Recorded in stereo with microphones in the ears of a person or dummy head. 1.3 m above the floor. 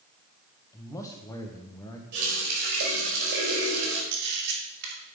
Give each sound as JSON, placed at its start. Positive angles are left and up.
{"t": 0.7, "sound": "a man speaking", "side_deg": 15, "distance_m": 1.2}
{"t": 2.1, "sound": "a running tap", "side_deg": -55, "distance_m": 4.0}
{"t": 4.1, "sound": "a camera shutter", "side_deg": -60, "distance_m": 2.5}